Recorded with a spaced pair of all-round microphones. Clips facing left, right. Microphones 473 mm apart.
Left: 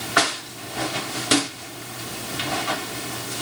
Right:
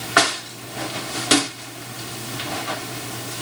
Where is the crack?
I don't hear a crack.